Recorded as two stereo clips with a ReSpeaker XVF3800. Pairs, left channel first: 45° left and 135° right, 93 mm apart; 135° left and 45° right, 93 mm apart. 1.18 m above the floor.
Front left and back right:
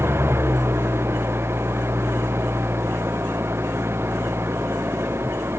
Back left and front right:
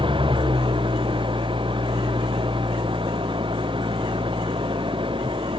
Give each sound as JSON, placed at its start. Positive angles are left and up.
{"t": 0.0, "sound": "an engine running", "azimuth_deg": -70}